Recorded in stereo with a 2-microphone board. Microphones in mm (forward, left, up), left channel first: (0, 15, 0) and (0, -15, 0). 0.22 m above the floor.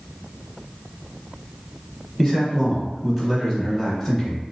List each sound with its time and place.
2.2 s a man speaking: 10° left (ahead or behind), 1.1 m